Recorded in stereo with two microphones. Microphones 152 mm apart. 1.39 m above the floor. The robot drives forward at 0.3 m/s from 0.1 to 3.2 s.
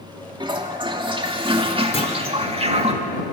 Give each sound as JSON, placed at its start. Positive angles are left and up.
{"t": 0.4, "sound": "a toilet flushing", "side_deg": -30, "distance_m": 2.5}
{"t": 1.9, "sound": "a clunk", "side_deg": 45, "distance_m": 3.5}